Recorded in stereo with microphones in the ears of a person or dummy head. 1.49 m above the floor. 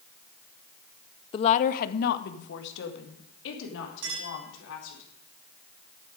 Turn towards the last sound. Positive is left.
turn(degrees=-80)